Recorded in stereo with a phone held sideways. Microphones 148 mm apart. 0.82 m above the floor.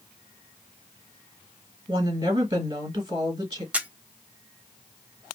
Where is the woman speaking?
40° right (ahead or behind), 1.6 m.